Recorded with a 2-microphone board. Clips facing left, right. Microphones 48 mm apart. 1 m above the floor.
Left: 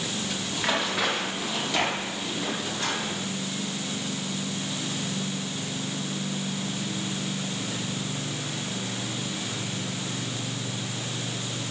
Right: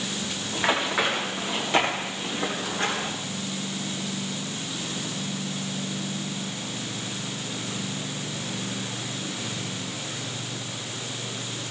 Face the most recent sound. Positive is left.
turn(degrees=-40)  # may be behind; listen again after turning